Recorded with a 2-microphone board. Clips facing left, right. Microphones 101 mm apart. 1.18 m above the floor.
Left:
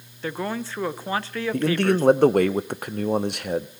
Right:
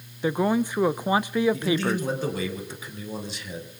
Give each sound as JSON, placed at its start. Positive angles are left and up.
{"t": 0.2, "sound": "a man speaking", "side_deg": -15, "distance_m": 0.5}
{"t": 1.5, "sound": "a man speaking", "side_deg": 70, "distance_m": 0.9}